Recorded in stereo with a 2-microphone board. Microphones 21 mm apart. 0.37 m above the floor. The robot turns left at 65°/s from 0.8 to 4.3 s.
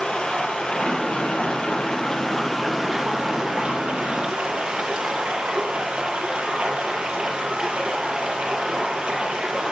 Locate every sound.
0.0 s running water: 125° left, 5.5 m; by 9.7 s 100° right, 5.5 m